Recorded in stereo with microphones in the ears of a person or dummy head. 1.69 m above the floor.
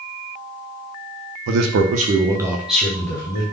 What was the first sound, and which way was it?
A man speaking, 65° right (ahead or behind).